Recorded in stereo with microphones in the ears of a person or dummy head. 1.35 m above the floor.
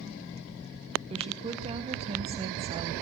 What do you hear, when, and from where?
1.1 s a woman speaking: 30° right (ahead or behind), 1.0 m